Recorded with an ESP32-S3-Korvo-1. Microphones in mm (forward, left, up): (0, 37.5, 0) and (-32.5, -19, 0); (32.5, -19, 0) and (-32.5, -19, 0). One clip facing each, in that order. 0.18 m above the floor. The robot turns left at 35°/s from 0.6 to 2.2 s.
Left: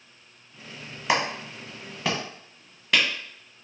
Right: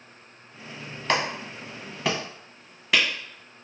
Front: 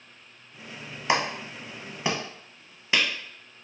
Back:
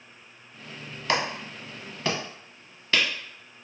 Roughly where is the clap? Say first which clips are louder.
Left 1 dB, front 1 dB; ahead.